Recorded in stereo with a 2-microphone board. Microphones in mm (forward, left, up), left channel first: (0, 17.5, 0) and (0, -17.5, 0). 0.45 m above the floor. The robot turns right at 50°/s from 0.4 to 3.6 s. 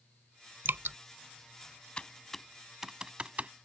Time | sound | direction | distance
0.7 | dripping | 80° right | ?
2.0 | typing on a keyboard | 25° left (ahead or behind) | ?